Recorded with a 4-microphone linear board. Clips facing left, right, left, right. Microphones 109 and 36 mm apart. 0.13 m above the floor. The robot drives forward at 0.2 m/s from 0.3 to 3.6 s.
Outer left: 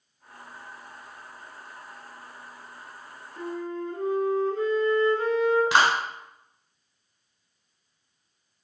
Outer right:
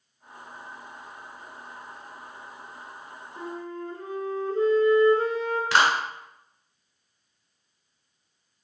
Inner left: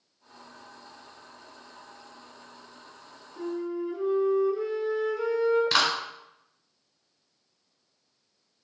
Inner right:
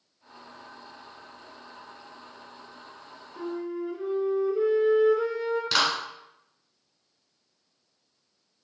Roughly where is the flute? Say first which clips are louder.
Outer left 3 dB, inner left 1 dB; right.